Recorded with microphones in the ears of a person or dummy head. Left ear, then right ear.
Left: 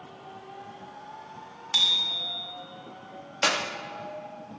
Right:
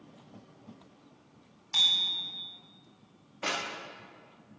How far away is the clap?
About 3 m.